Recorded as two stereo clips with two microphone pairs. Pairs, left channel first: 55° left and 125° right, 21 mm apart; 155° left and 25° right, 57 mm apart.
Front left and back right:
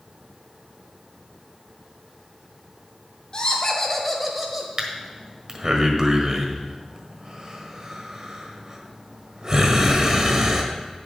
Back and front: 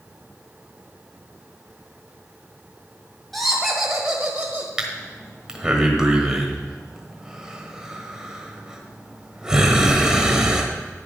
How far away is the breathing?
About 1.4 m.